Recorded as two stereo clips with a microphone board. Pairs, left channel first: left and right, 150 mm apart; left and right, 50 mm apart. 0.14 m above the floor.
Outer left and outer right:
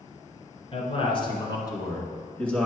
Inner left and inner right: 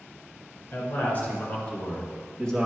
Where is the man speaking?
40° left (ahead or behind), 2 m; by 2.7 s 5° left (ahead or behind), 1.8 m.